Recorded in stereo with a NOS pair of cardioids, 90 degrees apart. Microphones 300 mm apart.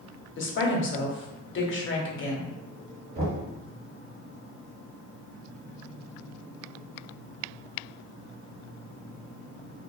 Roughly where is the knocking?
Ahead right.